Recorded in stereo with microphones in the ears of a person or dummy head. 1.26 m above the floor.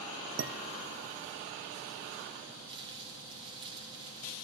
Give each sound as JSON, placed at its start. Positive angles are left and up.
{"t": 0.4, "sound": "dishes clattering", "side_deg": -60, "distance_m": 0.9}
{"t": 2.7, "sound": "crumpling", "side_deg": -30, "distance_m": 4.0}